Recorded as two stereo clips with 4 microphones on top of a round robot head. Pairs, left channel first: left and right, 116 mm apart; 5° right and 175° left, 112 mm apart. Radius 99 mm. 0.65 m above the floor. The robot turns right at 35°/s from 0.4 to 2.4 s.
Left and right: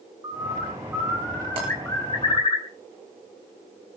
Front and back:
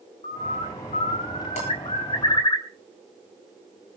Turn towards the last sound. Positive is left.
turn(degrees=-10)